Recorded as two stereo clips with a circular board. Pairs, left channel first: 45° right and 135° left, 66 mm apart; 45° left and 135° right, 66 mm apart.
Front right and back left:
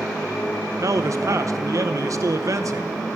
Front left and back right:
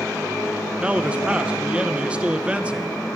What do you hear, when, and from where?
0.8 s a man speaking: 155° left, 0.8 m